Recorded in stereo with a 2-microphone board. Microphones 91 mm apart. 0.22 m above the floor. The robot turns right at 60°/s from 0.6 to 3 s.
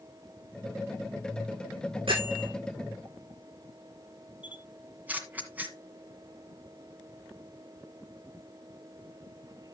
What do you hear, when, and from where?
2.1 s a bell: 85° right, 9.5 m; by 2.5 s 65° right (ahead or behind), 9.5 m
4.4 s a camera shutter: 20° right (ahead or behind), 1.8 m